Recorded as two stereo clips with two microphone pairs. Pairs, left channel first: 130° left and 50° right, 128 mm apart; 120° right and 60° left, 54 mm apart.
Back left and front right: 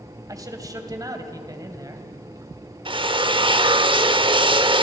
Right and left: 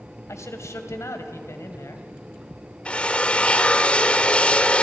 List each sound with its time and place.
0.3 s a man speaking: 110° right, 2.5 m
2.9 s a drill: 60° right, 0.9 m